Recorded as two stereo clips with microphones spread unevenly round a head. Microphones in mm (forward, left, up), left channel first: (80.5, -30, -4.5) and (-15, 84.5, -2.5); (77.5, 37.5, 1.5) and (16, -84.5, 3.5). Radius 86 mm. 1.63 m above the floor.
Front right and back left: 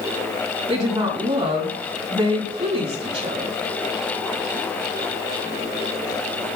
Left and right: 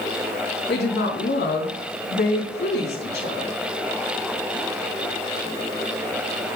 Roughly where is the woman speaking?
Left.